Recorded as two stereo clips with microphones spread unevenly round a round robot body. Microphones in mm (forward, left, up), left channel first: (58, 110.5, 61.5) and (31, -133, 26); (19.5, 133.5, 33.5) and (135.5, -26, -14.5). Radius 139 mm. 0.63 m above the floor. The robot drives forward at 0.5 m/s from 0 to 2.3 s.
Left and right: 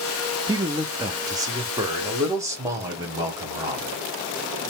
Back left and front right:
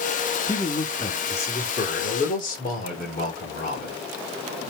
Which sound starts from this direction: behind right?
A man speaking, at 0.5 s.